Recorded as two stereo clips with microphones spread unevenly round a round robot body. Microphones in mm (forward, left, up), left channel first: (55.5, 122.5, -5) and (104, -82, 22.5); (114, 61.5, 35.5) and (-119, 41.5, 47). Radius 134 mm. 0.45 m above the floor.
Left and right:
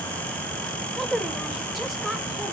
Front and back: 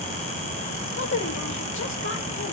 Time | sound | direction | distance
0.9 | a woman speaking | 20° left | 2.0 m